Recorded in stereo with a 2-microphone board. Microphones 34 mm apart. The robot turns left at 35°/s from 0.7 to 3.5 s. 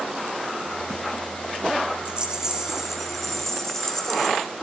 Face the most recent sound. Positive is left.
turn(degrees=165)